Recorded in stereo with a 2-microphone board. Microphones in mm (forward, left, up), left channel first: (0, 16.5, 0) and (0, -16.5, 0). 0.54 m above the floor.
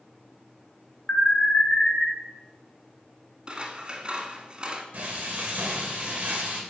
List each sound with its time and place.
1.1 s an alarm: 40° left (ahead or behind), 2.5 m
3.5 s scissors: 30° right (ahead or behind), 1.5 m
4.9 s frying: 40° right (ahead or behind), 2.5 m